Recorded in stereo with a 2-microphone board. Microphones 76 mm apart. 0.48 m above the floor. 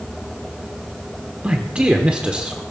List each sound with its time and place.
1.4 s a man speaking: 15° right (ahead or behind), 0.9 m